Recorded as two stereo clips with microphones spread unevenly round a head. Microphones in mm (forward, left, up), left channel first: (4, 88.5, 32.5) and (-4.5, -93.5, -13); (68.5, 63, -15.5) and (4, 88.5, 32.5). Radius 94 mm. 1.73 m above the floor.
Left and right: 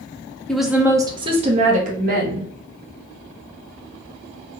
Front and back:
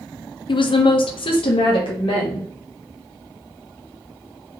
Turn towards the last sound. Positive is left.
turn(degrees=-50)